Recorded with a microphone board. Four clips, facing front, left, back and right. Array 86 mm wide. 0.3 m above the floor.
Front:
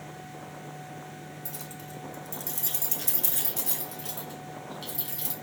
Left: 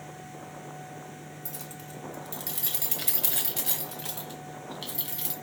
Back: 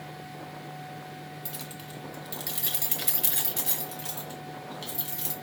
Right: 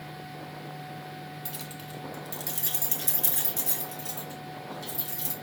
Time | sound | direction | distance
1.4 | keys jangling | 140° right | 1.0 m